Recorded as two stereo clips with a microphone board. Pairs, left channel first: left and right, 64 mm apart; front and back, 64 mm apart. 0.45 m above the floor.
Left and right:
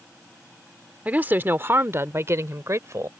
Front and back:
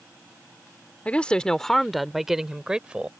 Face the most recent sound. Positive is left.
turn(degrees=-110)